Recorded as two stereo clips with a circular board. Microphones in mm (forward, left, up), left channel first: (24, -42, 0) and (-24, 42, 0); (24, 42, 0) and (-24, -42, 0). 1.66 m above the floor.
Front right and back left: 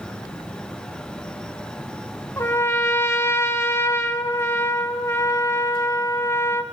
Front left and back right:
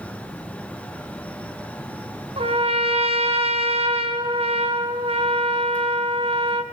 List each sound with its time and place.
2.4 s a trumpet: 120° right, 2 m